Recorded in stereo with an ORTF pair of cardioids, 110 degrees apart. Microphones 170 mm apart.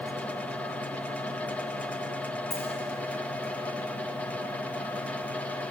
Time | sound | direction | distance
0.0 | a fan | 10° left | 0.9 m
2.5 | a dropped coin | 40° left | 8.5 m